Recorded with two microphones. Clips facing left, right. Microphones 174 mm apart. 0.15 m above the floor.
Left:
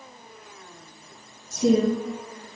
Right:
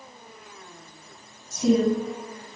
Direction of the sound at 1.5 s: 45° left (ahead or behind).